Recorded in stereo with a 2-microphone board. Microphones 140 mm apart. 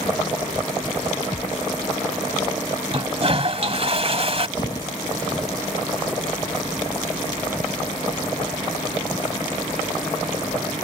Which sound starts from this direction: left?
Footsteps, at 4.6 s.